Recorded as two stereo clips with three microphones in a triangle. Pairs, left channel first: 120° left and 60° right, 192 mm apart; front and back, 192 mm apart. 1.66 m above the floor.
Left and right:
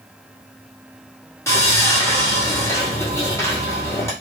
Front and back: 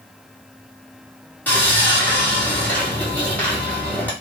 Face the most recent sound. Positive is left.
turn(degrees=65)